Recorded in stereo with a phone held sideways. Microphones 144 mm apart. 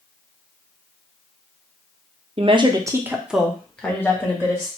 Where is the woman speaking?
40° right (ahead or behind), 0.6 m; by 4.7 s 20° left (ahead or behind), 1.3 m.